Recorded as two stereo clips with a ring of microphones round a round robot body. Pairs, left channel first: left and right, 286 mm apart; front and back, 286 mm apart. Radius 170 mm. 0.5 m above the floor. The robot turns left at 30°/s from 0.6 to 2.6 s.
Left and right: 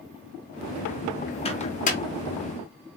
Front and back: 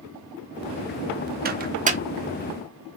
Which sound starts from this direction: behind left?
A microwave, at 1.4 s.